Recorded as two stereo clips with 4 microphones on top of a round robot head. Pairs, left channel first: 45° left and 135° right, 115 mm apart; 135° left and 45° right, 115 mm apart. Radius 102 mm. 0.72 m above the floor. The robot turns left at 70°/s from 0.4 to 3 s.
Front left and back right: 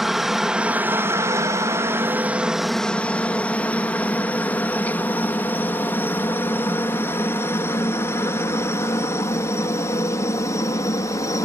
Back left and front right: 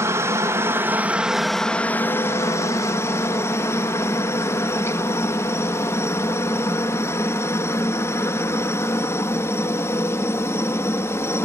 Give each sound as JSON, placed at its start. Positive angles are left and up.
{"t": 0.0, "sound": "a helicopter", "azimuth_deg": -50}